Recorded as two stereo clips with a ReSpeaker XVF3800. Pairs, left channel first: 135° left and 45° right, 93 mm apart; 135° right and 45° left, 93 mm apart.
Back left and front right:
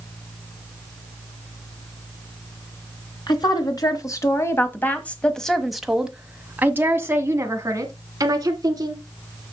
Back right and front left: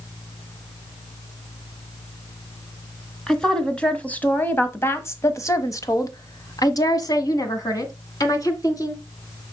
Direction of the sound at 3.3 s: 145° left.